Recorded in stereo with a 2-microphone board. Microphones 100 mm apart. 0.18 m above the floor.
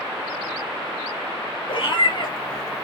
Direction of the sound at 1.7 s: 55° left (ahead or behind).